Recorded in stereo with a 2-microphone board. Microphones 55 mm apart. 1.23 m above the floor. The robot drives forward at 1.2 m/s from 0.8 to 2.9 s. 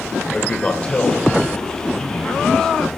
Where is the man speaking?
20° left (ahead or behind), 1.8 m; by 2.9 s 10° left (ahead or behind), 4.5 m.